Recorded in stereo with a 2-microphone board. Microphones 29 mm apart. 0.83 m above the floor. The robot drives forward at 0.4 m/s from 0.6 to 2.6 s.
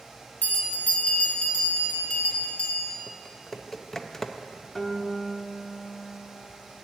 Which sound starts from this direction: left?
A bell, at 0.4 s.